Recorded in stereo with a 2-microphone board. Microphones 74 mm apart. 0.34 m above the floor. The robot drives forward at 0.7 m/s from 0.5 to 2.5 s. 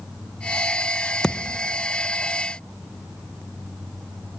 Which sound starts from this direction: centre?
A thud, at 1.2 s.